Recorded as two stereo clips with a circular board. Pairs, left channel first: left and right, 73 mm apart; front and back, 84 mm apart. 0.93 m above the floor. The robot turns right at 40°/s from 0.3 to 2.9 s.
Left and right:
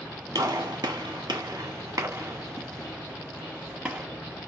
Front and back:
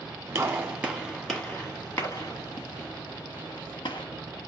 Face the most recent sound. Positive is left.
turn(degrees=-20)